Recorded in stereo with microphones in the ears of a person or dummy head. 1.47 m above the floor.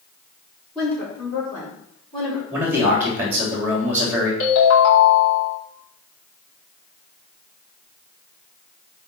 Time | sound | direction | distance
0.8 | a woman speaking | 20° left (ahead or behind) | 4.5 m
2.5 | a man speaking | 5° right (ahead or behind) | 3.5 m
4.4 | a ringtone | 70° left (ahead or behind) | 3.5 m